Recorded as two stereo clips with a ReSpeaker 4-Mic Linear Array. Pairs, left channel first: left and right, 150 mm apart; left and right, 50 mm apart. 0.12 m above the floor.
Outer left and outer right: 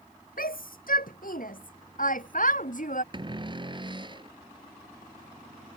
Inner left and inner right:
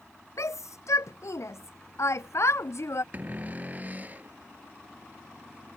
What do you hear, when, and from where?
0.4 s a shout: 70° left (ahead or behind); by 3.0 s 60° left (ahead or behind)
3.1 s a cupboard door: 30° right (ahead or behind)